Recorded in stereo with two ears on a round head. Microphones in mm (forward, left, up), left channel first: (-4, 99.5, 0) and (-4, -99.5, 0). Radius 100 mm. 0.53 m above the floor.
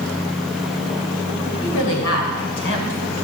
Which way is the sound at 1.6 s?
65° left (ahead or behind).